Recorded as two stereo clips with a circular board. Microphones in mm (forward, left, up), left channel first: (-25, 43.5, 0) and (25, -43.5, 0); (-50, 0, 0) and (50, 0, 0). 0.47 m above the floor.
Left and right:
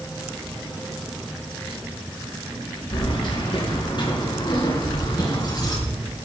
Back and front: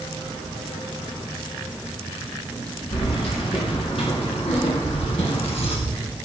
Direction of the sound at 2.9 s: 160° left.